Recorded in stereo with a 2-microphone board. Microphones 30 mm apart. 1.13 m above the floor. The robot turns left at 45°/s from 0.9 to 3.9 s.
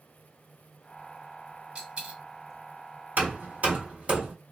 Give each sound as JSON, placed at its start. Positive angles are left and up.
{"t": 1.8, "sound": "a dropped coin", "side_deg": -30, "distance_m": 1.3}
{"t": 3.2, "sound": "hammering", "side_deg": -60, "distance_m": 1.1}